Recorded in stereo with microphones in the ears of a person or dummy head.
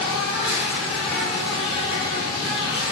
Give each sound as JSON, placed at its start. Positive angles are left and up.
{"t": 0.0, "sound": "an insect", "side_deg": -5, "distance_m": 3.0}